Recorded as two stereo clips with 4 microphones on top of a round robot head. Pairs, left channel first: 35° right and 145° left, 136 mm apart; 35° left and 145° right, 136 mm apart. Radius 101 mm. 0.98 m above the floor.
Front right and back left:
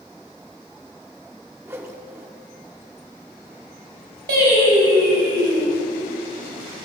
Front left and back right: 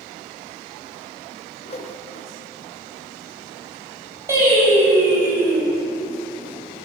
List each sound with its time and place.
1.6 s a whoosh: 75° left, 1.3 m
4.3 s singing: 140° left, 5.5 m